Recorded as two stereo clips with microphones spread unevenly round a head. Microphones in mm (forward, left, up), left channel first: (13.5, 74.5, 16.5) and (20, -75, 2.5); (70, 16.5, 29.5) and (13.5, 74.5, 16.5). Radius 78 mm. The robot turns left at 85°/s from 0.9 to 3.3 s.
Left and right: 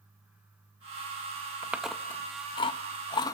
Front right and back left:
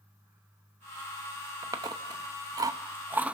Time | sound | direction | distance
1.6 | chewing | 165° right | 0.7 m